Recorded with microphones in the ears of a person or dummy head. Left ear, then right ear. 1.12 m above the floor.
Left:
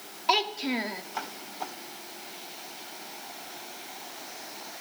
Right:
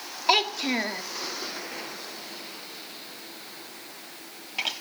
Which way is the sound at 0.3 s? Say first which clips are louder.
Right 3 dB; 15° right (ahead or behind).